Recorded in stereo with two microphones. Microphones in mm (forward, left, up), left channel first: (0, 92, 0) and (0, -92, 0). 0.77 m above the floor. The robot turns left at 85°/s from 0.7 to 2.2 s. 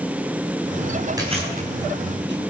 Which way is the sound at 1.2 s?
20° right (ahead or behind).